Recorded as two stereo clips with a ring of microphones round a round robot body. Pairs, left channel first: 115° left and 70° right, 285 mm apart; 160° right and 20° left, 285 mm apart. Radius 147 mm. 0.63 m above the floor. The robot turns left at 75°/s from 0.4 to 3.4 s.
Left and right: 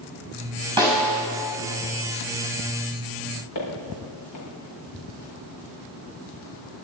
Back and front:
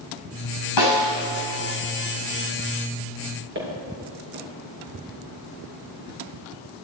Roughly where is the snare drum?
Behind right.